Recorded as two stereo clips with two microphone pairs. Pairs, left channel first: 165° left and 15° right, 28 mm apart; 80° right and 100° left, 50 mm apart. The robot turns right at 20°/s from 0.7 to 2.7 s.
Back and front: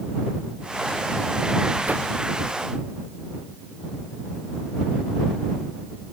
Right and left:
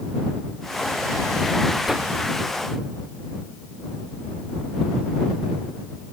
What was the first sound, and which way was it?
A whoosh, 10° left.